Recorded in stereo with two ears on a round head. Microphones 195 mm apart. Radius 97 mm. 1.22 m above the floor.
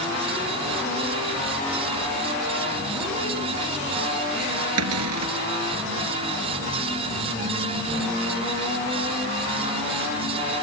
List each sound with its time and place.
4.8 s a cupboard door: 80° right